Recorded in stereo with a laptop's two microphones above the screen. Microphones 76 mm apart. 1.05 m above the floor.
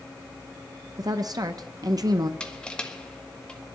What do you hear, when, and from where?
1.0 s a woman speaking: 55° right (ahead or behind), 0.6 m
2.4 s crushing: 15° left (ahead or behind), 1.3 m